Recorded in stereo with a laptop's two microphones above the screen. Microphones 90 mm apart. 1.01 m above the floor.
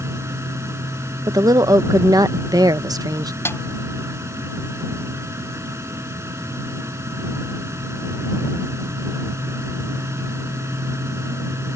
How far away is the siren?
No siren in this recording.